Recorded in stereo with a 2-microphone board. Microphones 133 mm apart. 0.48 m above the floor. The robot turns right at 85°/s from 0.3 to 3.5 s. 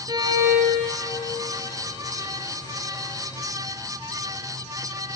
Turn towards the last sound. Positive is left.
turn(degrees=-120)